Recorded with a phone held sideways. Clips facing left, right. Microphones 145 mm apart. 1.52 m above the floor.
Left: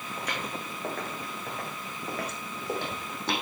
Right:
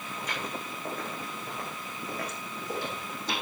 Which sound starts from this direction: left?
Footsteps, at 0.2 s.